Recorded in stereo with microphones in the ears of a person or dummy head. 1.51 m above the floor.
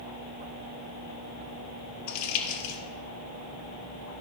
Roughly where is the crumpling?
Left.